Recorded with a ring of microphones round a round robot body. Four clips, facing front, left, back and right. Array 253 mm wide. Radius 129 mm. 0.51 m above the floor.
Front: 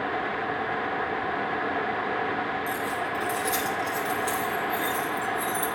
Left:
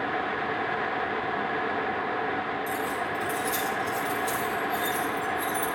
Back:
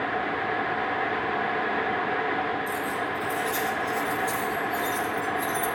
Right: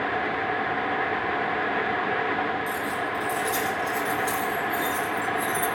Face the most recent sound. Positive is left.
turn(degrees=-25)